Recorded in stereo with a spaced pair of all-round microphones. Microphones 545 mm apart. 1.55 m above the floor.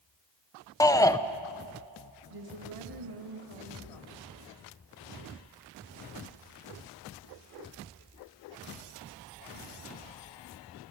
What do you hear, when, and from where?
0.8 s a shout: 5° left (ahead or behind), 0.9 m
2.3 s a woman speaking: 80° right, 3 m